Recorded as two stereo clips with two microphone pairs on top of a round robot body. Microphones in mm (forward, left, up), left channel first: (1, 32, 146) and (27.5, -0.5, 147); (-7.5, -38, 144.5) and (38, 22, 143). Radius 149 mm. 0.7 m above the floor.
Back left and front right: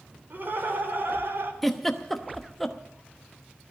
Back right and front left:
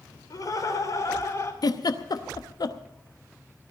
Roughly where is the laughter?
Right.